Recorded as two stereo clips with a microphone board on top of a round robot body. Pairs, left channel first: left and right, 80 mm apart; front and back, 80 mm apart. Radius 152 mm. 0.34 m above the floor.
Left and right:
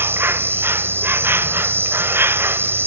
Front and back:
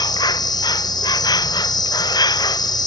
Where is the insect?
30° right.